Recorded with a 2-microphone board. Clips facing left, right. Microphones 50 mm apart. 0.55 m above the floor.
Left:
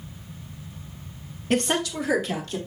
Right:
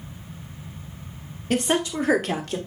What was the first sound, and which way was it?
A woman speaking, 5° left (ahead or behind).